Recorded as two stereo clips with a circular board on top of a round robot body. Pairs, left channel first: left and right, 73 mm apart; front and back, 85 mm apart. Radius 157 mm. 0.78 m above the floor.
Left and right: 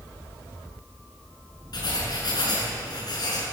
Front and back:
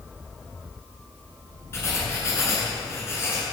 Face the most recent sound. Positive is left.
turn(degrees=60)